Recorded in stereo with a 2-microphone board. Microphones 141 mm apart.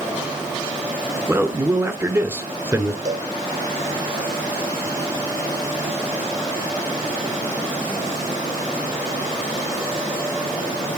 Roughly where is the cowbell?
Right.